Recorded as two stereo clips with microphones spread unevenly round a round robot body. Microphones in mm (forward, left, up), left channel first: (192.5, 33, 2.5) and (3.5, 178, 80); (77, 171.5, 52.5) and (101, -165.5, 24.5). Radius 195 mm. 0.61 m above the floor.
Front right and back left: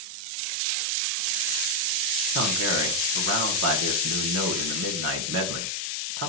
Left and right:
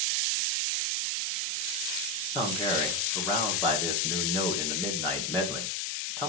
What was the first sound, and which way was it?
A man speaking, straight behind.